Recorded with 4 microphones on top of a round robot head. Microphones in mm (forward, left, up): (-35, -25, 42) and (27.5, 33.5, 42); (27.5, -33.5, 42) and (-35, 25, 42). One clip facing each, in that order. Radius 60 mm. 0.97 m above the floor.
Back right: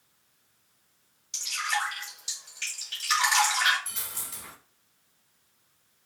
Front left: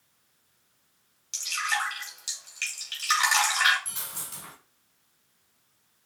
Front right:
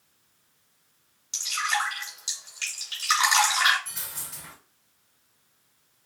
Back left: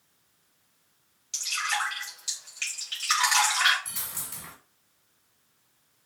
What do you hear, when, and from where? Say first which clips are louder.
1.3 s dripping: front left 1 dB, front right 3 dB; 25° left, 1.7 m
3.9 s a dropped coin: even, even; 105° left, 1.5 m